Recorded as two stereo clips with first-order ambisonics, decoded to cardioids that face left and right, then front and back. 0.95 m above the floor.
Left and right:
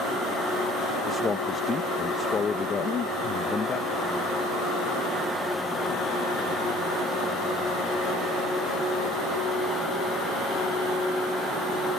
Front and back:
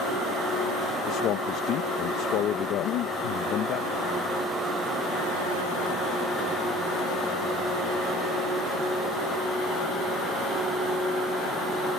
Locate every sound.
1.1 s a man speaking: 25° left
2.8 s breathing: 30° left